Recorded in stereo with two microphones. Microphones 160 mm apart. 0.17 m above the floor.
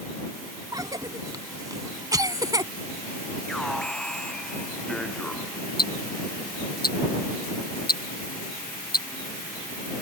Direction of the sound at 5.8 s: 75° left (ahead or behind).